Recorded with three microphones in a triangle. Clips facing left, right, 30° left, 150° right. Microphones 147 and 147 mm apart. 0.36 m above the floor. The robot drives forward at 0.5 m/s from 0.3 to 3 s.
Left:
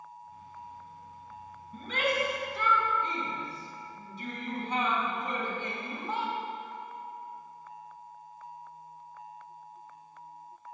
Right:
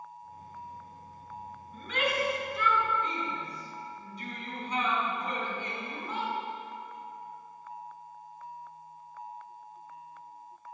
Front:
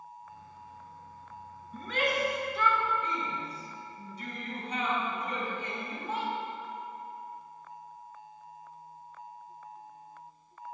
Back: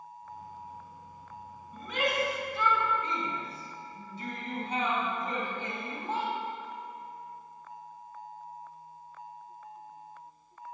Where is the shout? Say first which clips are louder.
Left 1 dB, even; 140° left, 2.5 m; by 6.3 s 150° left, 3 m.